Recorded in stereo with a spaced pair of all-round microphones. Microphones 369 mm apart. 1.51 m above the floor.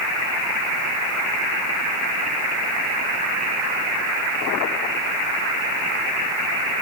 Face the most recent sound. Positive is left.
No sound to turn to.